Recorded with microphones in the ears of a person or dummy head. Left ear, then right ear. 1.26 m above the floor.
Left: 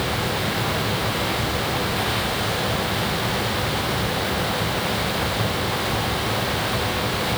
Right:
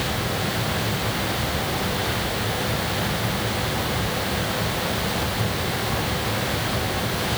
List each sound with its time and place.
Only background noise.